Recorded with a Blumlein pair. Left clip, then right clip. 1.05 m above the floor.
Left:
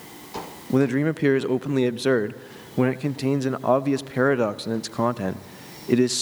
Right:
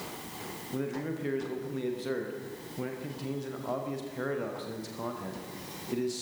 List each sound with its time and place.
0.7 s a man speaking: 35° left, 0.6 m